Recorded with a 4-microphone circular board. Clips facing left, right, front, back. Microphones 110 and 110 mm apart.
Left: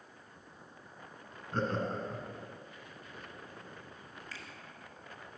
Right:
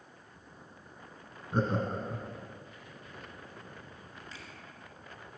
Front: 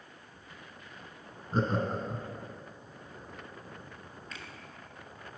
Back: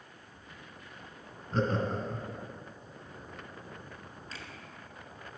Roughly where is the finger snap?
Behind right.